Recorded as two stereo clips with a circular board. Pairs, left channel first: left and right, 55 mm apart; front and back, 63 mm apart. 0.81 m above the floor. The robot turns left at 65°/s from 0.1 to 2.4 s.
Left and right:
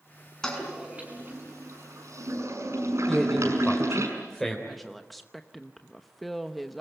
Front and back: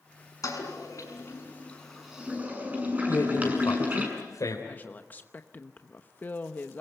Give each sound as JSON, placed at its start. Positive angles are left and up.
{"t": 0.4, "sound": "a toilet flushing", "azimuth_deg": 10, "distance_m": 6.0}
{"t": 3.1, "sound": "a man speaking", "azimuth_deg": 5, "distance_m": 3.0}
{"t": 4.7, "sound": "a woman speaking", "azimuth_deg": 0, "distance_m": 0.9}